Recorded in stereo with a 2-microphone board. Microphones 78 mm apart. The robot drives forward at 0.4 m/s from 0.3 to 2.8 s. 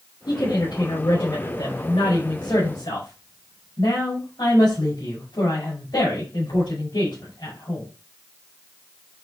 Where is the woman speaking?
75° left (ahead or behind), 5 m; by 7.8 s 85° left, 4.5 m.